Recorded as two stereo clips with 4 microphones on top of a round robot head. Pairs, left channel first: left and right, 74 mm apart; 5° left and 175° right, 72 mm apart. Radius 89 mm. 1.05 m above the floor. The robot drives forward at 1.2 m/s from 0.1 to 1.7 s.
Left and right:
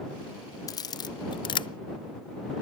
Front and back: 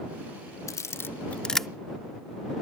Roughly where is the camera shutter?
Ahead left.